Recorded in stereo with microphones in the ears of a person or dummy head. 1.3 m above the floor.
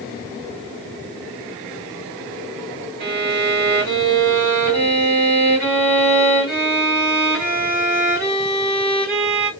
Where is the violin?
50° right (ahead or behind), 1.4 m.